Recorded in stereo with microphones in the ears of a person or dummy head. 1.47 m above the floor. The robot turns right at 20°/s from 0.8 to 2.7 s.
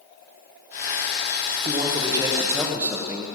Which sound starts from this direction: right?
A man speaking, at 1.6 s.